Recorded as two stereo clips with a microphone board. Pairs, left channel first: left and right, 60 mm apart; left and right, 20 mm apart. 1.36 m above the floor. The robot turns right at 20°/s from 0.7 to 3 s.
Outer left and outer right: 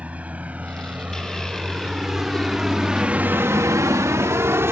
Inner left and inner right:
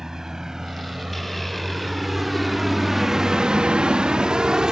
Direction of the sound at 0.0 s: 25° right (ahead or behind).